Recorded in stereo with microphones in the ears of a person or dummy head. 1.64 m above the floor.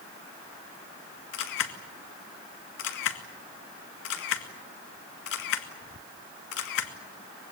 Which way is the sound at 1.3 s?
75° left (ahead or behind).